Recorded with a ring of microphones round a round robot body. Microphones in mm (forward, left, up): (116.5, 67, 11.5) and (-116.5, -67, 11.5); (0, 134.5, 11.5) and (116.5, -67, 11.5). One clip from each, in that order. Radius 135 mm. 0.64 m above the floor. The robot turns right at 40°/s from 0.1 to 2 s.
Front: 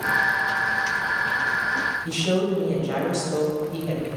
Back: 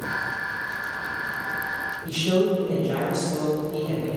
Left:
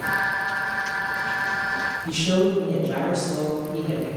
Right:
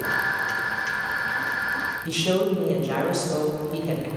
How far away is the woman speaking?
About 2.5 m.